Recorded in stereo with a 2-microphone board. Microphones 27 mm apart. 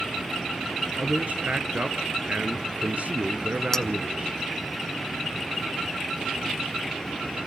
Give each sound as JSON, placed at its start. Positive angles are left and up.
{"t": 1.0, "sound": "a man speaking", "side_deg": -50, "distance_m": 2.5}
{"t": 3.7, "sound": "a clink", "side_deg": 20, "distance_m": 0.7}